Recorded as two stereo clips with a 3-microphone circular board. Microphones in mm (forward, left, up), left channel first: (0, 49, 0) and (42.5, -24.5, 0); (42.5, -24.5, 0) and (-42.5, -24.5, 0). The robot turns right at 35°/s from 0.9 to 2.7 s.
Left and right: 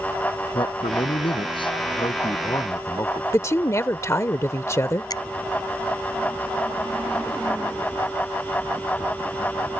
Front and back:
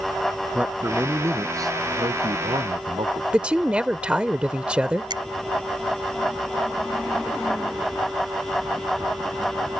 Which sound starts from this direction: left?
A man speaking, at 0.5 s.